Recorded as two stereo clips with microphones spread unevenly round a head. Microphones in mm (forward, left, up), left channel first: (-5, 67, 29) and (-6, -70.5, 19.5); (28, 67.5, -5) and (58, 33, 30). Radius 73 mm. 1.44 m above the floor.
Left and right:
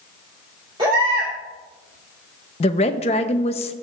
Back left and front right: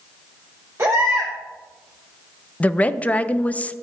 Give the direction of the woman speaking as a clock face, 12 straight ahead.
10 o'clock.